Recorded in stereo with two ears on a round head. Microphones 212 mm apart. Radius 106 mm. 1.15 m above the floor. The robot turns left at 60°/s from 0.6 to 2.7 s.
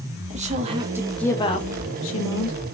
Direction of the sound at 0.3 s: 150° right.